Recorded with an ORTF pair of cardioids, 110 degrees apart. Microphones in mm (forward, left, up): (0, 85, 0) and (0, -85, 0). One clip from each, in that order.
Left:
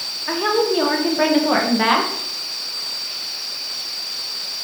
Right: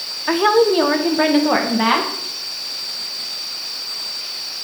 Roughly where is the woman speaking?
Ahead right.